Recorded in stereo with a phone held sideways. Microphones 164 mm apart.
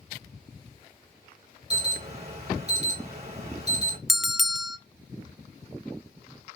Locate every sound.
1.7 s an alarm: 40° right (ahead or behind), 3.5 m
4.1 s a bell: centre (ahead or behind), 0.5 m